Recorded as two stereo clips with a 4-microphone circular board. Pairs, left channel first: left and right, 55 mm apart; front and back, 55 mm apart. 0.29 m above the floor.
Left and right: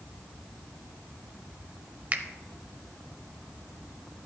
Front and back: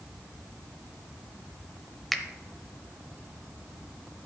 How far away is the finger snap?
About 0.7 m.